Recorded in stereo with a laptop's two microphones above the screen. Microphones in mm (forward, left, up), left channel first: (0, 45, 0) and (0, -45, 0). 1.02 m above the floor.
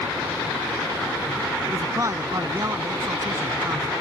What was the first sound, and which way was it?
A man speaking, 35° right (ahead or behind).